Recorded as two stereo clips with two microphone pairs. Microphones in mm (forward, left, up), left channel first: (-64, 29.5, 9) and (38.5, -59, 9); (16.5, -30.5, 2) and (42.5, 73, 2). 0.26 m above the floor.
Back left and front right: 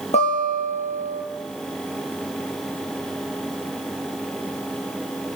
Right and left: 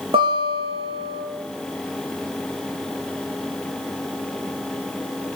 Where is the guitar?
100° left, 3.5 m.